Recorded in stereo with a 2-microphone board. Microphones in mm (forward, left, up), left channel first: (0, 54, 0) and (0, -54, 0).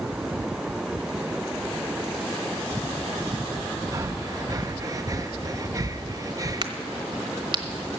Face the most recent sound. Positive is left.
turn(degrees=-45)  # may be behind; listen again after turning